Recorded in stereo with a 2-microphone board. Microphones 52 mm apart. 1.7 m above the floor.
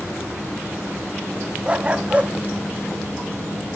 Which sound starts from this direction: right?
A dog barking, at 1.6 s.